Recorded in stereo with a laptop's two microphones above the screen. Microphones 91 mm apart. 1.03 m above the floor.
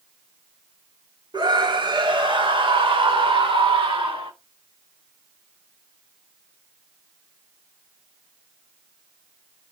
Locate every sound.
1.3 s a scream: 55° right (ahead or behind), 2.5 m; by 4.3 s 85° right, 3 m